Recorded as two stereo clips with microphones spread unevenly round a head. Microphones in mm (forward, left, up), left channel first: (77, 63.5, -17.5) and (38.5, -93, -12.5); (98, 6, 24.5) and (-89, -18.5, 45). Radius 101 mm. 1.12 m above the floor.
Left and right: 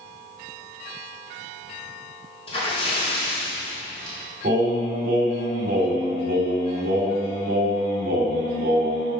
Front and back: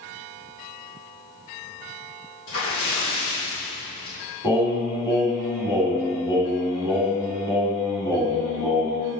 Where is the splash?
20° left, 3.5 m.